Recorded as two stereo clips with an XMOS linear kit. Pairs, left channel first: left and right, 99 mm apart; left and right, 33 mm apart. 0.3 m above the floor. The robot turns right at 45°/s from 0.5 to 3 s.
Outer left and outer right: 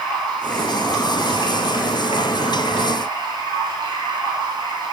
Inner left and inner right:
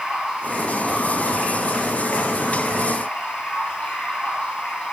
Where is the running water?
10° left, 6 m; by 4.9 s 125° left, 6 m.